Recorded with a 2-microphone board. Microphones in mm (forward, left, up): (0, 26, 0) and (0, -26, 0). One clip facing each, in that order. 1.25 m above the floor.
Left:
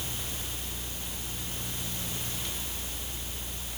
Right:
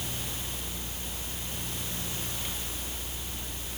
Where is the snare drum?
I don't hear a snare drum.